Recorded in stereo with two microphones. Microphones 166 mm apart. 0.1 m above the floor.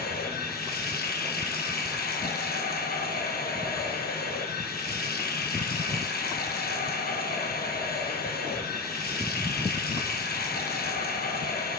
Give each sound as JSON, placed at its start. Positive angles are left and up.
{"t": 0.0, "sound": "running water", "side_deg": 70, "distance_m": 1.3}